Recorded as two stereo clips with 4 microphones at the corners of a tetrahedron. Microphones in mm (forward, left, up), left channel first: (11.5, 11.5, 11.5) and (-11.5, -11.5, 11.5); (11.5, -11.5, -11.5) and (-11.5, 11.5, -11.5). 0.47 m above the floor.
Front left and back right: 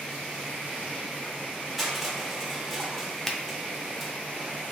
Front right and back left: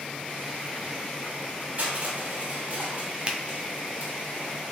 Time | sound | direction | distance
1.8 | crushing | 135° left | 0.9 m
3.3 | a finger snap | 115° left | 0.6 m